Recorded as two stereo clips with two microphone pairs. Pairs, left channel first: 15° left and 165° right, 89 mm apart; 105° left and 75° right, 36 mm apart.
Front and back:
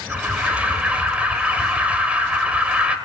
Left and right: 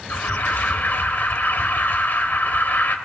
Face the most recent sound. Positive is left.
turn(degrees=120)